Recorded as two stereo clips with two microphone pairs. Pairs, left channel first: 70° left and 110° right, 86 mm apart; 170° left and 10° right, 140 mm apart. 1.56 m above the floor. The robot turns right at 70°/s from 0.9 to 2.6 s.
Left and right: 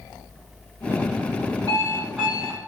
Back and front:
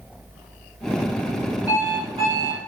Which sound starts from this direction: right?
An alarm clock, at 1.7 s.